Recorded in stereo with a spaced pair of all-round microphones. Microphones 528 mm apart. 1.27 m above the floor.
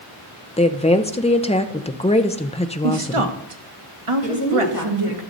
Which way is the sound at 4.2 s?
35° left (ahead or behind).